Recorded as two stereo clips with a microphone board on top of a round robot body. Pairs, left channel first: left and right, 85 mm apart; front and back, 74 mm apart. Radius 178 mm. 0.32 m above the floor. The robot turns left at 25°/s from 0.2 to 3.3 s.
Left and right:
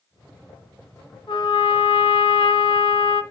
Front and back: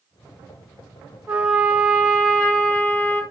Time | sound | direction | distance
1.3 | a trumpet | 115° left | 2.5 m